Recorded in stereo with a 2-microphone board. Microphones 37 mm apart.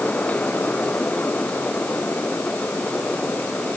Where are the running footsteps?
No running footsteps in this recording.